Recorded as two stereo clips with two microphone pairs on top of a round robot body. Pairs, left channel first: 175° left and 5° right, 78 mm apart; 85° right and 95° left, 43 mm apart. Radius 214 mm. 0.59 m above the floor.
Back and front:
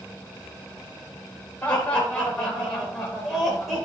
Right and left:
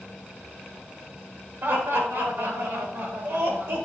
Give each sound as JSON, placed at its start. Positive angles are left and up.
{"t": 1.6, "sound": "laughter", "azimuth_deg": 105, "distance_m": 4.5}